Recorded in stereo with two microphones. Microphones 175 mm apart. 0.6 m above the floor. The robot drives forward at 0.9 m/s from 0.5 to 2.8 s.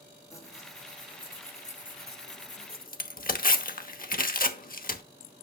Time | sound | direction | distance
0.3 | tearing paper | 20° left (ahead or behind) | 1.8 m